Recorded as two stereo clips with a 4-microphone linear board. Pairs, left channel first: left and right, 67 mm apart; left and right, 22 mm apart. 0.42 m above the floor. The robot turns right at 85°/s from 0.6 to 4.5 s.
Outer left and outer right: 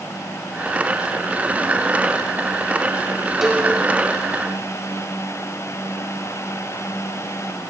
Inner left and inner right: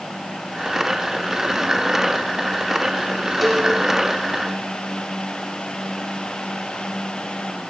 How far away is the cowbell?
About 1.1 m.